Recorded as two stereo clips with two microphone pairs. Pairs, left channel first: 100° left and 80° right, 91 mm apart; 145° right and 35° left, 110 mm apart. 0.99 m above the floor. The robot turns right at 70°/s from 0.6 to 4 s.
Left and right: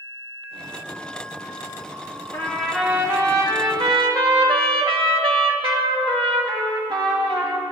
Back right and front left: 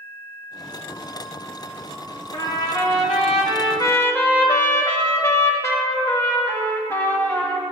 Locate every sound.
2.3 s a trumpet: 165° left, 1.9 m; by 7.6 s 80° right, 1.9 m